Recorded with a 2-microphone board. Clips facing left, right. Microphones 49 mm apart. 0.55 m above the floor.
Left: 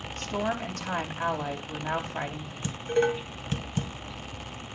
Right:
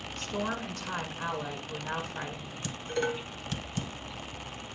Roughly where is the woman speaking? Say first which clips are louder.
Left 4 dB; left.